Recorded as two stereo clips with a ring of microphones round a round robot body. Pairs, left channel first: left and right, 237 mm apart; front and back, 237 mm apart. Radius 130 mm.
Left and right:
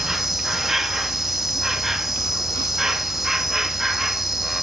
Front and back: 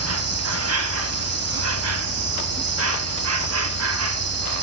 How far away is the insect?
About 1.3 m.